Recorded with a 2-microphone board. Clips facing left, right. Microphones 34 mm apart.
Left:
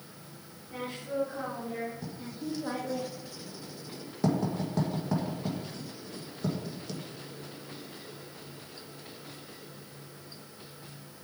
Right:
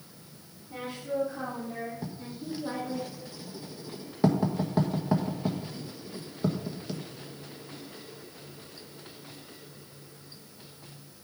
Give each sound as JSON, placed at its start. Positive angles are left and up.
{"t": 0.7, "sound": "a woman speaking", "side_deg": 5, "distance_m": 4.5}
{"t": 2.0, "sound": "writing", "side_deg": -20, "distance_m": 1.5}